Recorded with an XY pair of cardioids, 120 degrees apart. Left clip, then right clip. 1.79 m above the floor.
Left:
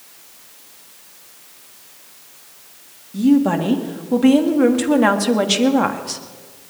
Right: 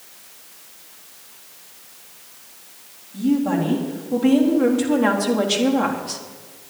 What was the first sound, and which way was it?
A woman speaking, 55° left.